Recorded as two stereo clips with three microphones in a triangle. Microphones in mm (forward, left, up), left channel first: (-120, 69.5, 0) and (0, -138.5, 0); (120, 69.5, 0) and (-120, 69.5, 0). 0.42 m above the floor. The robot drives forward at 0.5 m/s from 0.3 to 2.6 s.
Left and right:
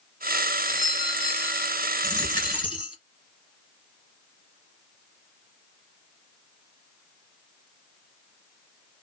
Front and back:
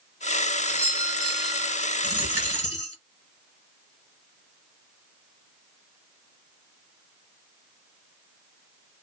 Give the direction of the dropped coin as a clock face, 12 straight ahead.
6 o'clock.